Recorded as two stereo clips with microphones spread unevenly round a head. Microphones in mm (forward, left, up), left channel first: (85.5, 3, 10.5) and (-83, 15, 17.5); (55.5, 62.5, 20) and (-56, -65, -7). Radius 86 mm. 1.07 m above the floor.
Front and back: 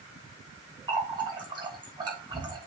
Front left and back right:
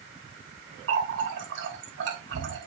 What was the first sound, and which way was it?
A running tap, 120° right.